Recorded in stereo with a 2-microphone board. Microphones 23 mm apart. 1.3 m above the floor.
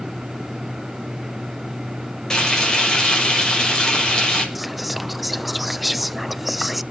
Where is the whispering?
5° right (ahead or behind), 0.7 m.